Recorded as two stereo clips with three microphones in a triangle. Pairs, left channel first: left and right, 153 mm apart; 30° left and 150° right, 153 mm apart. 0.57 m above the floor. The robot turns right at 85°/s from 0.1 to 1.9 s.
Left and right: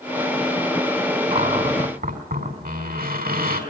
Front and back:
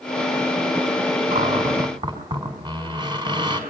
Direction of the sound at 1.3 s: 140° right.